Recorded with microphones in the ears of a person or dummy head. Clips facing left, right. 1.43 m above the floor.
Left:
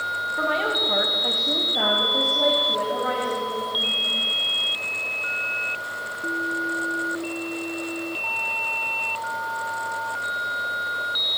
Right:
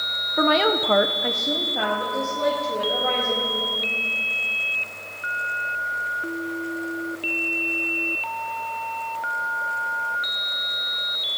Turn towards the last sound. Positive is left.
turn(degrees=25)  # may be behind; listen again after turning